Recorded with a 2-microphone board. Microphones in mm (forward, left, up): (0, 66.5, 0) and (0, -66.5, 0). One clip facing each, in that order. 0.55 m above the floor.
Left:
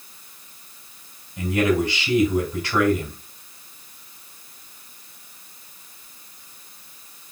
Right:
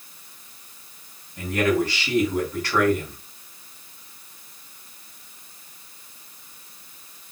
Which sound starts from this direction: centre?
A man speaking, at 1.4 s.